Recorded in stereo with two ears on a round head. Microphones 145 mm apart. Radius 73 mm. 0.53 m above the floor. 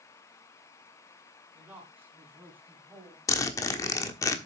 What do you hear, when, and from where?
1.5 s a man speaking: 10° right (ahead or behind), 5 m; by 3.2 s 15° right (ahead or behind), 3 m
3.3 s a zipper: 20° left (ahead or behind), 1.3 m